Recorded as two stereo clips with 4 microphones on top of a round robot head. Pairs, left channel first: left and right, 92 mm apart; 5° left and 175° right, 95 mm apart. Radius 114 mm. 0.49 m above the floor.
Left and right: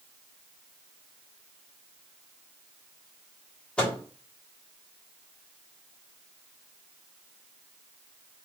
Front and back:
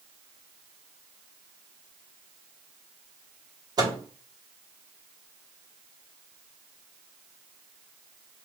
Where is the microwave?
165° left, 1.4 m.